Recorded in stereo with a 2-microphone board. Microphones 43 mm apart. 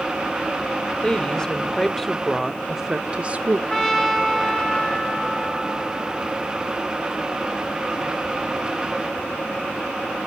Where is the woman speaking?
20° left (ahead or behind), 2.5 m; by 3.6 s 40° right (ahead or behind), 1.2 m.